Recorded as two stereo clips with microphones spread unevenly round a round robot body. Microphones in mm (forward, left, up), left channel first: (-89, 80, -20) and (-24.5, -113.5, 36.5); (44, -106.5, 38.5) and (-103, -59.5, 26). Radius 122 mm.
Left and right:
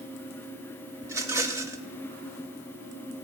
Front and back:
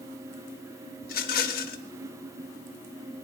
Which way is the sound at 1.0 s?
15° left.